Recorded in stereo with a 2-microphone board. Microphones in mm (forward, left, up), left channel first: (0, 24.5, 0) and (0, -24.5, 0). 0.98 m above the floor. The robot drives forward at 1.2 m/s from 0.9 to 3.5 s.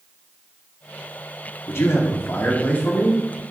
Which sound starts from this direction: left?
A man speaking, at 1.7 s.